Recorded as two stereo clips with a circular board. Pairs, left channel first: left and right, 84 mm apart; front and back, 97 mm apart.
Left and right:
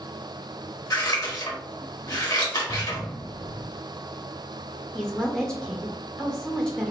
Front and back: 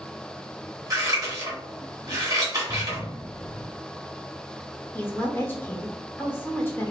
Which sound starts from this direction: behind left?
Scissors, at 0.9 s.